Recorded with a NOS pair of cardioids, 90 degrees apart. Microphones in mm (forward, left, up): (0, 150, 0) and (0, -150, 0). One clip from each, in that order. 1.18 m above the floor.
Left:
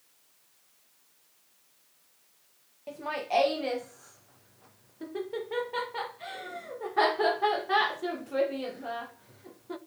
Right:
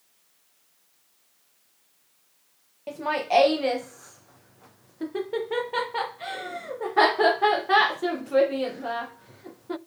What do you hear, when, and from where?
2.9 s laughter: 30° right, 0.7 m